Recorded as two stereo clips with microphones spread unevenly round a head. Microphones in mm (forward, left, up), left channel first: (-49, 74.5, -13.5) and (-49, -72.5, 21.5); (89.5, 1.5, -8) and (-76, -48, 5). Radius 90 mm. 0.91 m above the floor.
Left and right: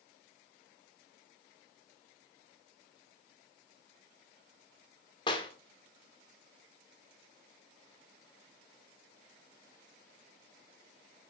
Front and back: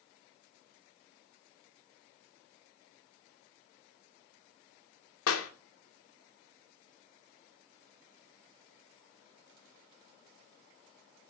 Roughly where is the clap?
Ahead left.